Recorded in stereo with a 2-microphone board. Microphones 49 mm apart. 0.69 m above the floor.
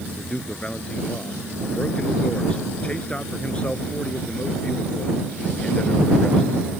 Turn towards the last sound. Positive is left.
turn(degrees=20)  # may be behind; listen again after turning